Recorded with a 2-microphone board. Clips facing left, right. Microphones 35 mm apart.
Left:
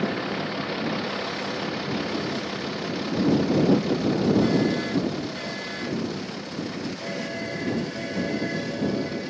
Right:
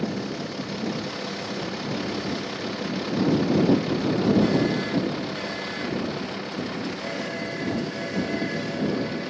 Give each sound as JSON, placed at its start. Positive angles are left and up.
{"t": 0.0, "sound": "a vehicle", "side_deg": 30}